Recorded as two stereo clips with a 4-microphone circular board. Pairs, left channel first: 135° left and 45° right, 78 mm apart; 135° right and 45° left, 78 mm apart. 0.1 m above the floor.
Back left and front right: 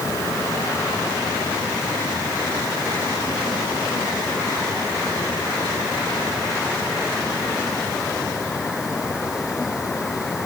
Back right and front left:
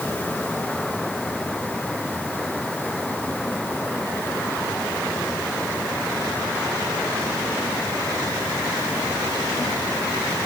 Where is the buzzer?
No buzzer in this recording.